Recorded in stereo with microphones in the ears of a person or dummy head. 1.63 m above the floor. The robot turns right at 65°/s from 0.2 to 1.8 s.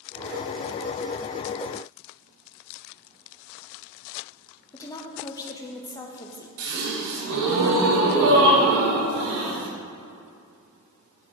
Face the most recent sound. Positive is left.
turn(degrees=-50)  # may be behind; listen again after turning